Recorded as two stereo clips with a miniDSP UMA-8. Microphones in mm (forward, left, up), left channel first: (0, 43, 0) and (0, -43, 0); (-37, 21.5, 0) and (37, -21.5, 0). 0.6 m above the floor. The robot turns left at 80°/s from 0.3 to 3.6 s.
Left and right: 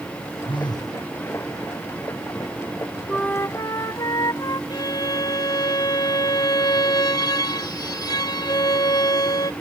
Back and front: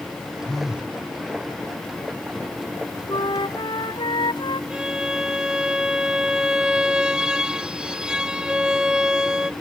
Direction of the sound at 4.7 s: 50° left.